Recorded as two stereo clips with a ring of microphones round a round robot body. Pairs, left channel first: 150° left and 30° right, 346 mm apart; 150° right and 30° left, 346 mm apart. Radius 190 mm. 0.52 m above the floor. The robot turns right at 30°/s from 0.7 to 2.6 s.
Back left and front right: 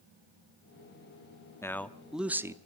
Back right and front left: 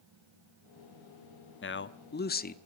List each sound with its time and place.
1.6 s a man speaking: 135° right, 1.1 m; by 2.6 s 105° right, 1.1 m